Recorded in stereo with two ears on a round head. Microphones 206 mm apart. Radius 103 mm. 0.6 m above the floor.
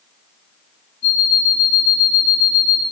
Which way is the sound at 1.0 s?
50° left (ahead or behind).